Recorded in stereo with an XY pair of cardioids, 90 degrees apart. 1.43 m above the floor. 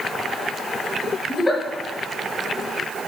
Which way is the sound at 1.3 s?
20° left.